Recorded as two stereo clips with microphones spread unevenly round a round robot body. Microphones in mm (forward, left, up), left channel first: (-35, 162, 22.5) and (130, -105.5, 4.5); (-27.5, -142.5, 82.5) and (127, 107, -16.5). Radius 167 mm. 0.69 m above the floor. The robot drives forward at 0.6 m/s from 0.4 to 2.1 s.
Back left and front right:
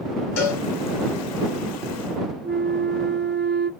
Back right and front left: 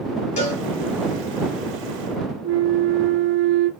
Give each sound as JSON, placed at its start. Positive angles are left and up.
{"t": 0.4, "sound": "a cowbell", "azimuth_deg": 160, "distance_m": 2.5}
{"t": 2.4, "sound": "a flute", "azimuth_deg": 5, "distance_m": 0.6}